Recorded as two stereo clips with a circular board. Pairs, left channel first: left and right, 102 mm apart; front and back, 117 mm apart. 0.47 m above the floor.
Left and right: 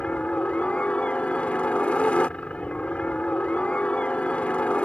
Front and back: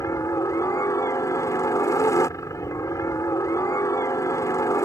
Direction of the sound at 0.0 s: 25° left.